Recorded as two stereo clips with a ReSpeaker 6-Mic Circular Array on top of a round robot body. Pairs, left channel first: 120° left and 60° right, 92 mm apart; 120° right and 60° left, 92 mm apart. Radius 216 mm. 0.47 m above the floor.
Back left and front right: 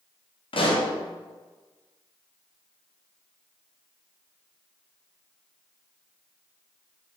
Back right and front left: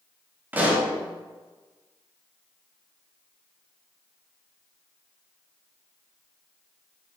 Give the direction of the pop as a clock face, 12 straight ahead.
8 o'clock.